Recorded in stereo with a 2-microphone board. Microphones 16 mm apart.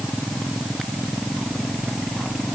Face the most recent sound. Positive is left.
No sound to turn to.